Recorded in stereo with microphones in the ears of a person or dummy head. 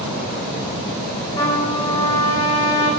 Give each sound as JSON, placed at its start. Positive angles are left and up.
{"t": 1.4, "sound": "a trumpet", "side_deg": 20, "distance_m": 7.5}